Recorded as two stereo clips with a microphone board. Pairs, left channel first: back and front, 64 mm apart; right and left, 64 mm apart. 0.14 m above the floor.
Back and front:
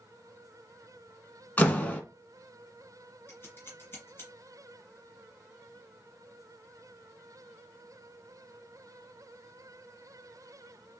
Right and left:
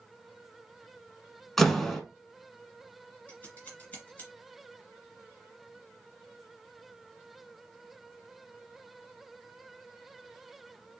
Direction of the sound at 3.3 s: 140° right.